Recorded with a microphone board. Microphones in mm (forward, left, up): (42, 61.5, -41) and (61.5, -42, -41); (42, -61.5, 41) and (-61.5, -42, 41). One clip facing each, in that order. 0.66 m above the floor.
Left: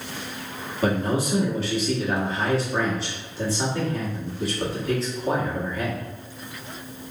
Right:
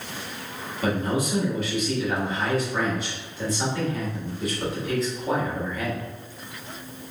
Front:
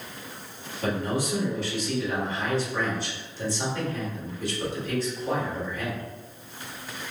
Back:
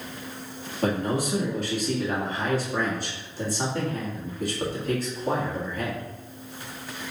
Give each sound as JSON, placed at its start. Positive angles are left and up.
{"t": 0.8, "sound": "a man speaking", "azimuth_deg": 150, "distance_m": 1.6}